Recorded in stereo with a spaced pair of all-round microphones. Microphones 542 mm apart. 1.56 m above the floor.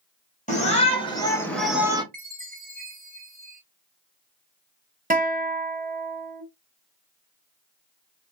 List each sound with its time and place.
0.5 s a shout: 15° left (ahead or behind), 1.3 m; by 2.0 s 10° right (ahead or behind), 0.6 m
2.1 s a chime: 15° right (ahead or behind), 0.8 m
5.1 s a guitar: 15° right (ahead or behind), 0.5 m